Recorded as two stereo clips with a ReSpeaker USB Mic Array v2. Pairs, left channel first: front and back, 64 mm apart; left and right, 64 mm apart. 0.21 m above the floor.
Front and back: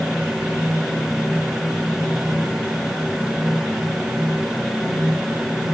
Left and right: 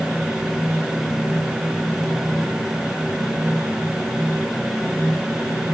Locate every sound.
Only background noise.